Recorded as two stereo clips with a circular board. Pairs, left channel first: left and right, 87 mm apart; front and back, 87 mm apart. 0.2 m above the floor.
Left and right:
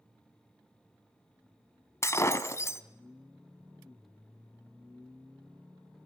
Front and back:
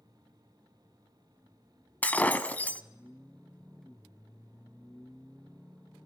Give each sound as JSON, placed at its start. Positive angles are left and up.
{"t": 2.0, "sound": "breaking glass", "azimuth_deg": 60, "distance_m": 1.0}